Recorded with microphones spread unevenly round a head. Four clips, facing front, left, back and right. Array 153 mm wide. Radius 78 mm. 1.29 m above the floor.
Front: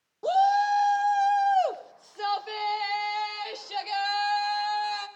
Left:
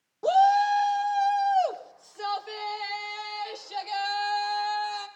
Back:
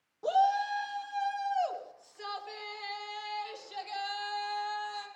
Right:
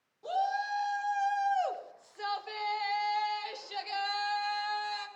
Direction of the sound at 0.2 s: 65° left.